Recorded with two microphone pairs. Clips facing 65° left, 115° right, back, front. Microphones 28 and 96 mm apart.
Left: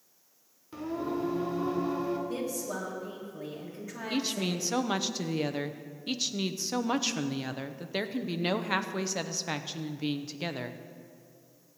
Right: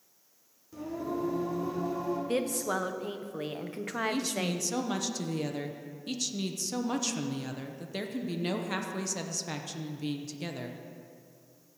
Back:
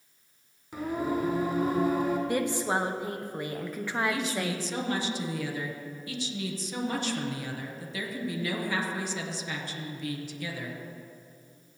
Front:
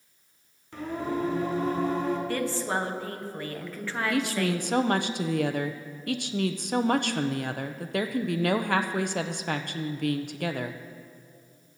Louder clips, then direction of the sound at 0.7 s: Left 2 dB, back 1 dB; 105° left.